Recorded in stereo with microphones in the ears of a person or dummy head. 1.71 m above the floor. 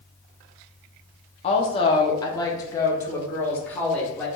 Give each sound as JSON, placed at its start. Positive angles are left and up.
{"t": 1.4, "sound": "a woman speaking", "side_deg": 30, "distance_m": 0.7}